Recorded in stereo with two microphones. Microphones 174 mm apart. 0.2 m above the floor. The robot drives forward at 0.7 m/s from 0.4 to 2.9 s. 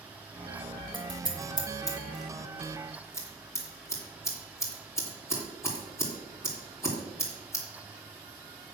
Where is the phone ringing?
I don't hear a phone ringing.